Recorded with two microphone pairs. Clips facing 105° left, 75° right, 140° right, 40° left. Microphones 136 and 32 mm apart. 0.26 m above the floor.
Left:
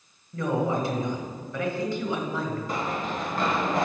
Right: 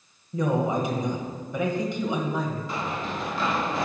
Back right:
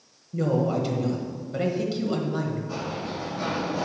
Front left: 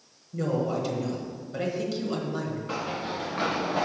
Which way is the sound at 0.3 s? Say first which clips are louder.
Right 1 dB, back right 3 dB; 90° right.